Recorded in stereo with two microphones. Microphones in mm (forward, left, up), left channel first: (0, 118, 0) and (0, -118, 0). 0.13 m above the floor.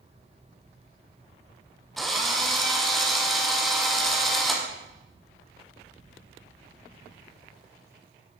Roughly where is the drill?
Centre.